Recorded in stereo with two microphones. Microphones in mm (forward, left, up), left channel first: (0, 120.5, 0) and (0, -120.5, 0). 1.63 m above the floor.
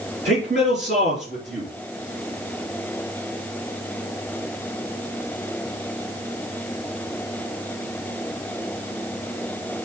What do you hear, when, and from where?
0.2 s a man speaking: 45° right (ahead or behind), 3.5 m